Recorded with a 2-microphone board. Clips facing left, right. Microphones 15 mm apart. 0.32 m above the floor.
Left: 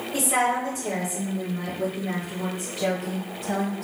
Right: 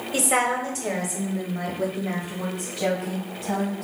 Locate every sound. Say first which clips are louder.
0.1 s a woman speaking: right 1 dB; 40° right (ahead or behind), 1.2 m; by 3.9 s 15° right (ahead or behind), 1.8 m